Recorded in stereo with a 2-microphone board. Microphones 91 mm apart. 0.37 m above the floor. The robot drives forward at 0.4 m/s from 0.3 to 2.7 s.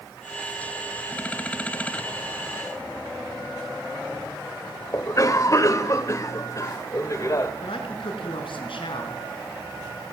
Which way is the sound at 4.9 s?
35° left (ahead or behind).